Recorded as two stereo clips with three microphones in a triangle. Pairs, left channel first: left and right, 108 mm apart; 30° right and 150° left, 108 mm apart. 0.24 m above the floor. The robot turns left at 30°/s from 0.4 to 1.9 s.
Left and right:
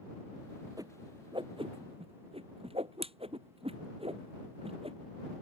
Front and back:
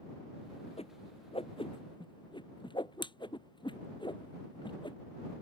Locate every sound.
0.8 s a whoosh: 35° right; by 5.0 s 70° right